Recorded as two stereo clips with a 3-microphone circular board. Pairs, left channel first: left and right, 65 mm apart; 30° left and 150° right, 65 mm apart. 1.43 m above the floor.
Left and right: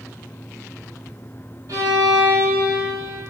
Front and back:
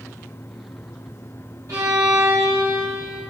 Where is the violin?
120° right, 2 m.